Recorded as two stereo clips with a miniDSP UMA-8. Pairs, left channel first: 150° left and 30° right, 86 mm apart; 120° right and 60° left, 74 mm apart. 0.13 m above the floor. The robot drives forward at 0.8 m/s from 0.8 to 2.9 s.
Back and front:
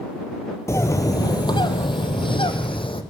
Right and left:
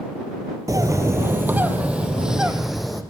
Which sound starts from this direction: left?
A bird, at 0.7 s.